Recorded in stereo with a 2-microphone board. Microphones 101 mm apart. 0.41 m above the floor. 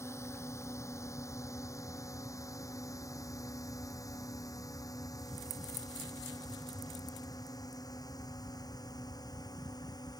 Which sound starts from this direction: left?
A drone, at 0.0 s.